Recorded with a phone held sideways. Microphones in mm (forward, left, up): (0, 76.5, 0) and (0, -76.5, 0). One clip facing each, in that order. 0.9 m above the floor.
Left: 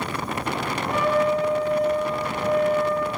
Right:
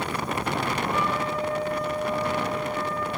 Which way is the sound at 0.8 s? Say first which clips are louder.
Left 6 dB; 80° left.